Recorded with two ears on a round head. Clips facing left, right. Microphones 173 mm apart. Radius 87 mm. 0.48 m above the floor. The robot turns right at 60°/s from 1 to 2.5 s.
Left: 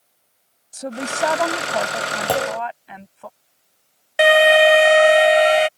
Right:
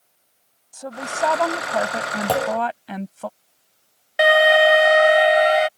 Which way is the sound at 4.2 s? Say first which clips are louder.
Left 2 dB; 35° left (ahead or behind).